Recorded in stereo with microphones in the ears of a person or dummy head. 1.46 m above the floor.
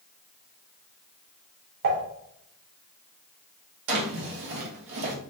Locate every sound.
1.8 s dishes clattering: 65° right (ahead or behind), 3 m
3.9 s a drawer: 60° right (ahead or behind), 1.1 m